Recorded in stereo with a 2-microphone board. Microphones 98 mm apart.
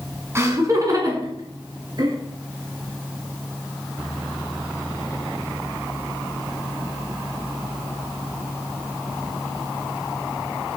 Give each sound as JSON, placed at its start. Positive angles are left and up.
{"t": 0.3, "sound": "laughter", "side_deg": -25, "distance_m": 1.7}